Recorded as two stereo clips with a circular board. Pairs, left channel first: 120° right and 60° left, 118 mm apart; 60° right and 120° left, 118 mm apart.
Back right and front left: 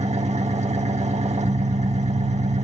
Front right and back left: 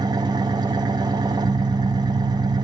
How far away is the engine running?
About 2 m.